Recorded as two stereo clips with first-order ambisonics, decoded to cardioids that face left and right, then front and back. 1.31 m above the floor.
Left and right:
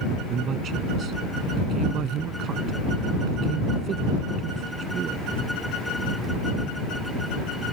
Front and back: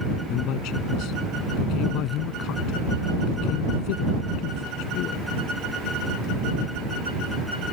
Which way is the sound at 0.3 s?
35° right.